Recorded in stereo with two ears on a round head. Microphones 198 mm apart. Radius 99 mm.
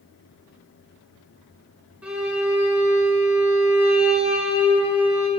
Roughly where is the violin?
Centre.